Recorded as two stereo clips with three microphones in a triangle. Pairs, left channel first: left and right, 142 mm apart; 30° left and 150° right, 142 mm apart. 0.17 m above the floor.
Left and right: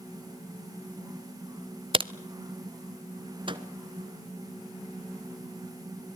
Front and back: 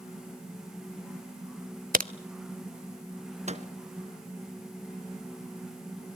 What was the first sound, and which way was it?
A crack, 145° right.